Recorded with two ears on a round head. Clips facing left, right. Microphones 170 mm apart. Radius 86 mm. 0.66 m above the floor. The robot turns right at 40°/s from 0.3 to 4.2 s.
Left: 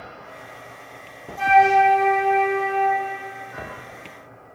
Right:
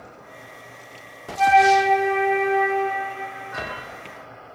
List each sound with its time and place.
1.4 s a flute: 160° left, 2 m; by 3.0 s 135° right, 2 m